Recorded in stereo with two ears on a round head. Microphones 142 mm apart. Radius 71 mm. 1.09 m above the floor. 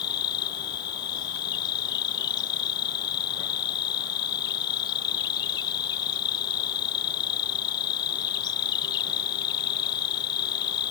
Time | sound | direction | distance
0.0 | an insect | 30° left (ahead or behind) | ?